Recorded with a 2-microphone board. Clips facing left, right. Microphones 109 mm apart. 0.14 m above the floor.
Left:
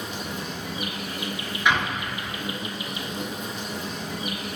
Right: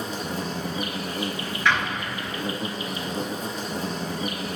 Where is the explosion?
15° left (ahead or behind), 1.0 m.